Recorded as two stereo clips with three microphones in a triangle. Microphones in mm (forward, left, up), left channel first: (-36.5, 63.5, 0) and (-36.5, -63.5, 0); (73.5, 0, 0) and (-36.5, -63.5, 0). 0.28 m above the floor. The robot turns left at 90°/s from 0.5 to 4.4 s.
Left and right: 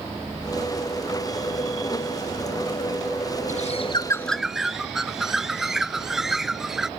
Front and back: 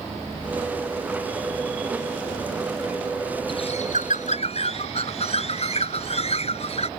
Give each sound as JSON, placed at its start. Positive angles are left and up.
{"t": 3.5, "sound": "a bird", "azimuth_deg": 80}